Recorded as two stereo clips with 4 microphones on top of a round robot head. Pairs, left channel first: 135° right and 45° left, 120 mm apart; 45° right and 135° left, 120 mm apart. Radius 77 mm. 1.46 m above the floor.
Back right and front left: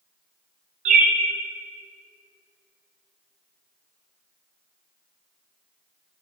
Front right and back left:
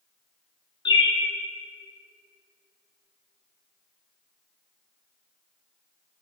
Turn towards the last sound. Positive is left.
turn(degrees=10)